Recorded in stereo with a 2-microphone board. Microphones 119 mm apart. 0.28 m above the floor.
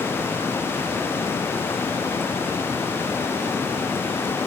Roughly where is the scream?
I don't hear a scream.